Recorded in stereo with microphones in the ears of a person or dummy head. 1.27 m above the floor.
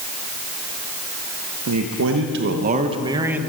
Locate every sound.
1.7 s a man speaking: 85° right, 1.1 m; by 3.4 s 15° right (ahead or behind), 0.9 m